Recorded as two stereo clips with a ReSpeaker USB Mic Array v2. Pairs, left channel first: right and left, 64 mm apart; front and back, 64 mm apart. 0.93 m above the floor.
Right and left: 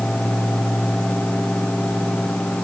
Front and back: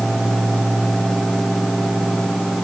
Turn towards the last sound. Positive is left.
No sound to turn to.